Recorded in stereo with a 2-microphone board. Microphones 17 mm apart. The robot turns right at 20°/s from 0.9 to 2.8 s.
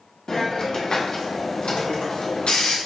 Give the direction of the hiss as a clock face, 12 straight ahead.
10 o'clock.